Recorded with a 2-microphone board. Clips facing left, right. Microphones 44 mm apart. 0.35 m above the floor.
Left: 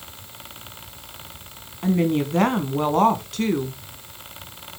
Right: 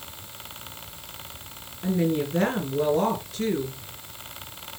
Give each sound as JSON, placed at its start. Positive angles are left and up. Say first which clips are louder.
{"t": 1.8, "sound": "a woman speaking", "louder": "left 4 dB", "side_deg": 70, "distance_m": 2.5}